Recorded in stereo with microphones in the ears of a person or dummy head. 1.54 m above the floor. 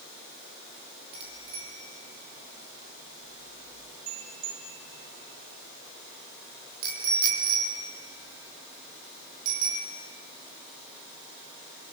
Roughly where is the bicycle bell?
Right.